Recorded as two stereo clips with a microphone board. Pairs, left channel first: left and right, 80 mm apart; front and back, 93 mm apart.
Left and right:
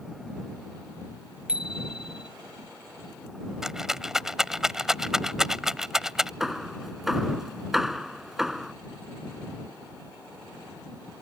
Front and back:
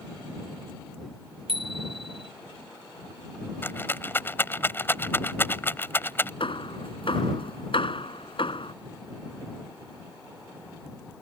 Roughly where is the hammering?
Ahead.